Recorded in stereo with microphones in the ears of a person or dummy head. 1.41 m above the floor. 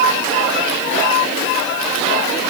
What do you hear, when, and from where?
Only background noise.